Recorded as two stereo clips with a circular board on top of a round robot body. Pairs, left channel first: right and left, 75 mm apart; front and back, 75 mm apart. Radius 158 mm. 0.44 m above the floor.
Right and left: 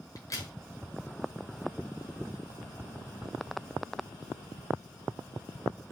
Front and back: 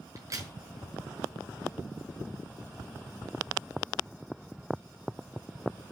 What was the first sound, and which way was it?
A crack, 130° right.